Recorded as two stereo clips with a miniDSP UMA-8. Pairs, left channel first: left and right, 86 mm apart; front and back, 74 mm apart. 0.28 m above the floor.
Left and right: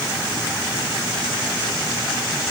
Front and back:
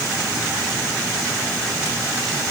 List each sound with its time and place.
Only background noise.